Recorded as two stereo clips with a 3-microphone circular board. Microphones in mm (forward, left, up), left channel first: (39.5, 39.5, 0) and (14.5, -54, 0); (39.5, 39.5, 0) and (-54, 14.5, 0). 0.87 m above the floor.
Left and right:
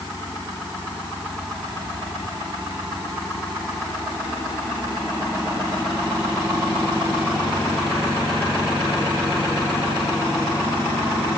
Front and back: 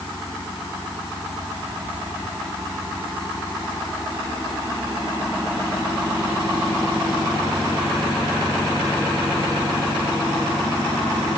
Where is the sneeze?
No sneeze in this recording.